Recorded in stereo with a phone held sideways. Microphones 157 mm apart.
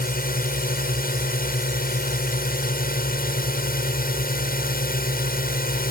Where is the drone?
70° left (ahead or behind).